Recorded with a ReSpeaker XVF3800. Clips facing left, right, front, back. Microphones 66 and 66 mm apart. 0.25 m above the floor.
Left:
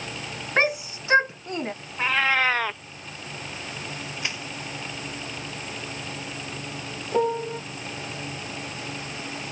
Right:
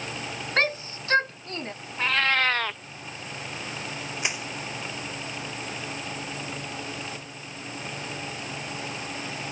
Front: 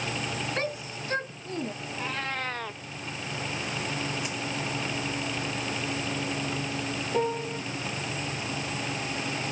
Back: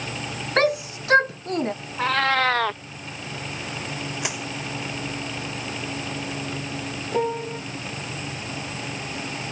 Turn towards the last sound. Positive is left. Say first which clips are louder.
# left 16 dB, back 4 dB
turn(degrees=105)